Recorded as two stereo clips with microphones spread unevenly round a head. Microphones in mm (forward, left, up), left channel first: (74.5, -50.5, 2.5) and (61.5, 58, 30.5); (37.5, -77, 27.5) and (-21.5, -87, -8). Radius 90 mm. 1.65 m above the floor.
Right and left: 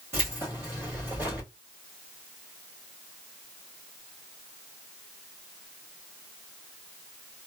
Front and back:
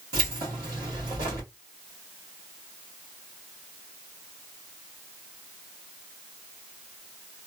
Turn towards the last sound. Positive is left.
turn(degrees=165)